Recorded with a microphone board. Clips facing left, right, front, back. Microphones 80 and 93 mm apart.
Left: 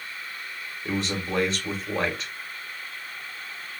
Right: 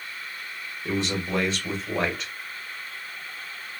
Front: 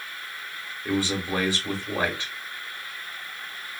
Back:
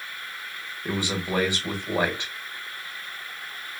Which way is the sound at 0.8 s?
Straight behind.